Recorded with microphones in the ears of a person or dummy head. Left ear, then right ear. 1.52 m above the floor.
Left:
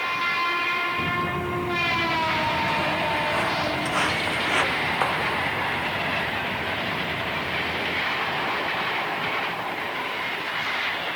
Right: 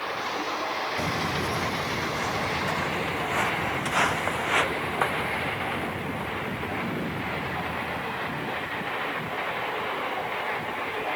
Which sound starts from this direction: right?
Footsteps, at 1.0 s.